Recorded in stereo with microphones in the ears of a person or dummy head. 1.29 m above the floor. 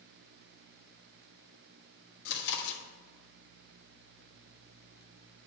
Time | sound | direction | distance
2.2 | chewing | 60° left (ahead or behind) | 1.5 m